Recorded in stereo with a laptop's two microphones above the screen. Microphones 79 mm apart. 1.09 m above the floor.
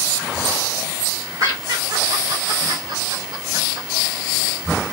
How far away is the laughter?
About 1.2 m.